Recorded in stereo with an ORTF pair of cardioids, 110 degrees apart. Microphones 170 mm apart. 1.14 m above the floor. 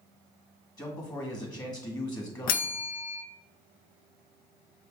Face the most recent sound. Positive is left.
turn(degrees=60)